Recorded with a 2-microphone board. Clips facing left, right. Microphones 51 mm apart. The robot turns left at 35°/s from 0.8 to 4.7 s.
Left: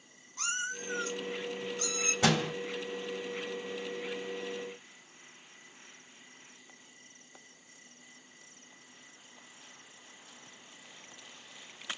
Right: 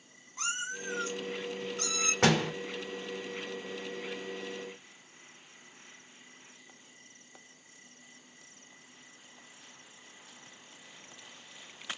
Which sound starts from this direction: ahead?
A cat meowing, at 0.4 s.